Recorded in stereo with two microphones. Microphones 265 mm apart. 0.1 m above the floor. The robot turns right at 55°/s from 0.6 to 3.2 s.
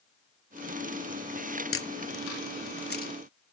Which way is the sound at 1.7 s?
55° left (ahead or behind).